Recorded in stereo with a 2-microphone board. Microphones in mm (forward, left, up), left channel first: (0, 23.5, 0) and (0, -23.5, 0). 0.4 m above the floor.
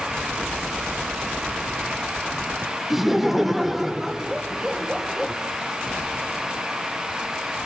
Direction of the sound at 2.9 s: 5° right (ahead or behind).